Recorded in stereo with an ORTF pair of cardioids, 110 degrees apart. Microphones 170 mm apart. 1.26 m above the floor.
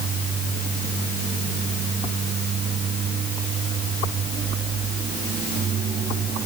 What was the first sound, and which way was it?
Only background noise.